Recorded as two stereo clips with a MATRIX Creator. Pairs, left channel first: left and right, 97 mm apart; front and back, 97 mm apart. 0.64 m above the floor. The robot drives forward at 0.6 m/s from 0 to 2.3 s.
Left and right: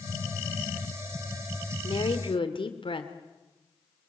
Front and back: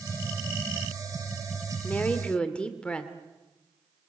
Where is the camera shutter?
I don't hear a camera shutter.